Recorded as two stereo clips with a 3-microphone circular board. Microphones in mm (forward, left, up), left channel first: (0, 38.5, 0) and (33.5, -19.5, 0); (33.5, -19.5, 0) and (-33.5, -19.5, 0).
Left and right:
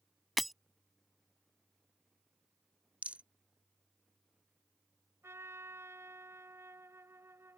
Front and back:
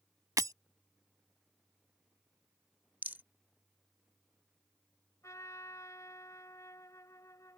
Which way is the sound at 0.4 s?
150° right.